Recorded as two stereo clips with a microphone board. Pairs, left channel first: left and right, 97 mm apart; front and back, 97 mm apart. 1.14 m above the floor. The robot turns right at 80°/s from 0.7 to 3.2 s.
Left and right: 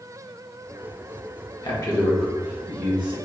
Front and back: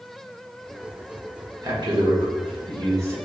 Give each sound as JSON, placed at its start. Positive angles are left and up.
{"t": 1.6, "sound": "a man speaking", "azimuth_deg": 125, "distance_m": 1.6}